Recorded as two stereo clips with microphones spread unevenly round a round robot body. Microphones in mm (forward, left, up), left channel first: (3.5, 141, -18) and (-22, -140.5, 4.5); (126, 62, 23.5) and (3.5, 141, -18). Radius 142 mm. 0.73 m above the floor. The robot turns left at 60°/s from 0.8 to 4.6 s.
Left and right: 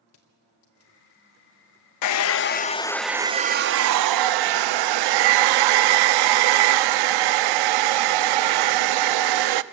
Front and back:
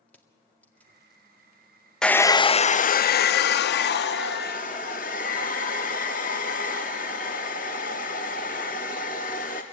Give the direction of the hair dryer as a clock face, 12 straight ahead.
10 o'clock.